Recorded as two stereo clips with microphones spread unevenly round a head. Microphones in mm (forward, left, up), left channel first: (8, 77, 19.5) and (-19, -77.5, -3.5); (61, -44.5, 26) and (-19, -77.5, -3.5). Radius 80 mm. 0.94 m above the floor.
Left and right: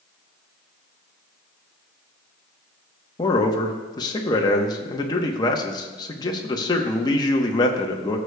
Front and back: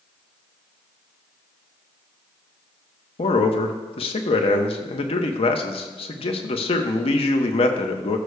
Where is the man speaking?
15° left, 1.0 m.